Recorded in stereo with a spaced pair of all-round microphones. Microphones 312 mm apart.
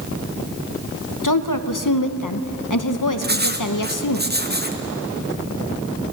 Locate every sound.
1.2 s a woman speaking: 80° left, 0.9 m
3.2 s writing: 30° right (ahead or behind), 1.1 m